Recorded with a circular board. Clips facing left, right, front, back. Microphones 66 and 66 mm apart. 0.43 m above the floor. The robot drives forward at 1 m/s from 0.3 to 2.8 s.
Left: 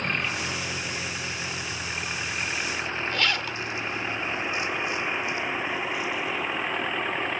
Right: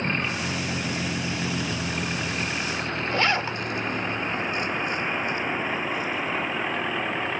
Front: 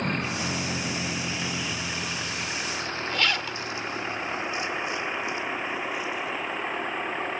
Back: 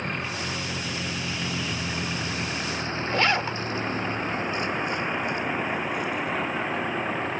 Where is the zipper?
135° right.